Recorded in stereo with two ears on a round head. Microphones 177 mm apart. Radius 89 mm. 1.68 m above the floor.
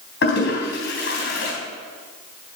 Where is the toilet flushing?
60° left (ahead or behind), 3.5 m.